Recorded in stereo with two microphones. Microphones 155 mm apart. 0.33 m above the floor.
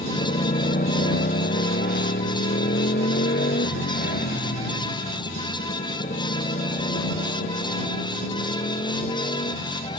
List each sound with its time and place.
0.0 s a motorcycle: 50° left (ahead or behind)